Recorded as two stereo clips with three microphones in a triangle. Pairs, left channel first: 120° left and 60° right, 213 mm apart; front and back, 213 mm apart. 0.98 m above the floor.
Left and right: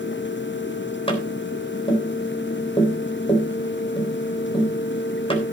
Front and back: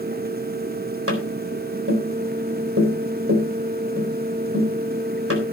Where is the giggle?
I don't hear a giggle.